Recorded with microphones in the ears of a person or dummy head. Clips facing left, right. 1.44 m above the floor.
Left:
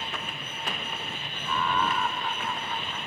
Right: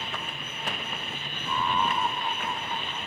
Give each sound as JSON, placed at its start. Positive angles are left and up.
{"t": 1.4, "sound": "laughter", "side_deg": -15}